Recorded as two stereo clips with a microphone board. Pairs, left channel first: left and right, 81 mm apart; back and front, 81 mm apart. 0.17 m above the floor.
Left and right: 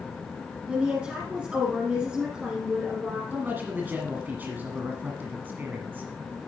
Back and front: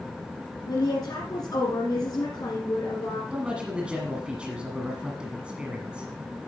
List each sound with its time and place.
0.7 s a woman speaking: 165° right, 2 m
3.3 s a man speaking: 60° right, 1.5 m